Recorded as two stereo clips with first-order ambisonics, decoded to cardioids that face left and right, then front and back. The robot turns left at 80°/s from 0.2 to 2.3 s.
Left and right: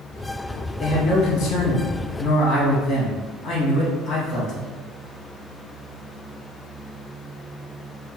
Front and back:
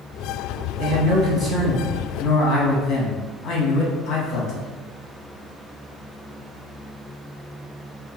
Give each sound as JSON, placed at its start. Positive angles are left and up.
{"t": 0.8, "sound": "a man speaking", "azimuth_deg": 160, "distance_m": 0.9}